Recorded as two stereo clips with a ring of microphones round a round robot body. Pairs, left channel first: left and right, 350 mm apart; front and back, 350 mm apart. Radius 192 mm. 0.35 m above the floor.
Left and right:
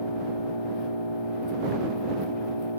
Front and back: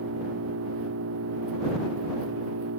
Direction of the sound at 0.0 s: 120° left.